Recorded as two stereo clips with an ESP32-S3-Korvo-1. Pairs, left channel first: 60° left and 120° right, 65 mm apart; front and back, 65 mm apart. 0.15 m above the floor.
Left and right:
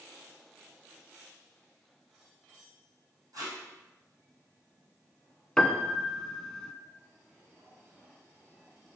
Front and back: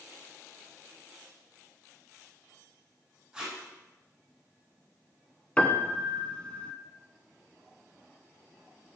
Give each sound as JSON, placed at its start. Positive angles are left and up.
{"t": 3.3, "sound": "tape being pulled", "azimuth_deg": -95, "distance_m": 4.0}
{"t": 5.6, "sound": "a piano", "azimuth_deg": 5, "distance_m": 0.7}